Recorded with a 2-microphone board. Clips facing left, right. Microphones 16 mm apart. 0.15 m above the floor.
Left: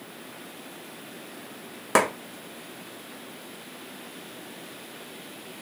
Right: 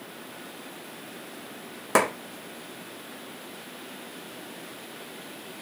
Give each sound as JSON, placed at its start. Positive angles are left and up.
{"t": 1.9, "sound": "a clap", "side_deg": 15, "distance_m": 1.2}